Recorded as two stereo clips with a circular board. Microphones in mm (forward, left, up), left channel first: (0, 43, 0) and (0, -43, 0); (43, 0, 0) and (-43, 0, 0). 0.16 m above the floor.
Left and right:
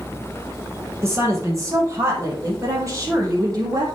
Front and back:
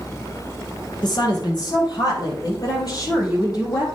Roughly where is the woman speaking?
Ahead right.